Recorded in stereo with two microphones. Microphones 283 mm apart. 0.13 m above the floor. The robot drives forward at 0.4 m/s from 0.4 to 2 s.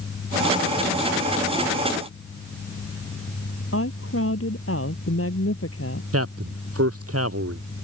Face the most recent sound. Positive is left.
turn(degrees=-55)  # may be behind; listen again after turning